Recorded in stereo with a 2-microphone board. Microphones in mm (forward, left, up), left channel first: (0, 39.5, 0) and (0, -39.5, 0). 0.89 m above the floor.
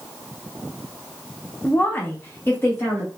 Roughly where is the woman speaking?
Centre.